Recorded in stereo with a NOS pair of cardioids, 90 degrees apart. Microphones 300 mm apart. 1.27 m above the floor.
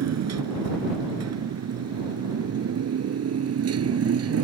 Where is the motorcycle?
60° right; by 4.5 s 50° right.